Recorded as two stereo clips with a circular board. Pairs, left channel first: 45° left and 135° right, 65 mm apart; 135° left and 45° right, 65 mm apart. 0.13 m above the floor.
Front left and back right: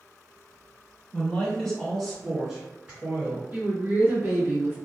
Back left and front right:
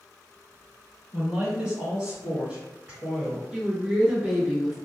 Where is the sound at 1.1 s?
15° left, 1.7 m; by 3.4 s 100° right, 1.9 m.